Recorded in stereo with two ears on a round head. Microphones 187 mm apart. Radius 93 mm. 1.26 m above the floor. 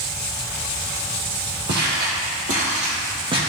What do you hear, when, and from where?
1.7 s footsteps: 55° right (ahead or behind), 2.5 m; by 3.4 s 25° right (ahead or behind), 2.5 m